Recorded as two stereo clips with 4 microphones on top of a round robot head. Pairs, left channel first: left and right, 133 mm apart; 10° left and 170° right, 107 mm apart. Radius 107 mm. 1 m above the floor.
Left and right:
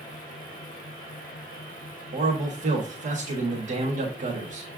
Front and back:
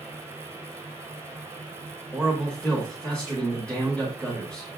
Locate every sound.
2.1 s a man speaking: 70° right, 1.4 m